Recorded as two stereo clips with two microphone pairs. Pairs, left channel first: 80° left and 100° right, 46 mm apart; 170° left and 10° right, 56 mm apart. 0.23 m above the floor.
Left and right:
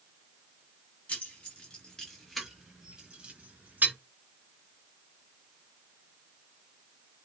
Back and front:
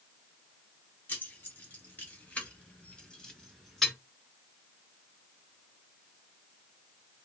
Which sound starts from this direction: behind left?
Keys jangling, at 1.1 s.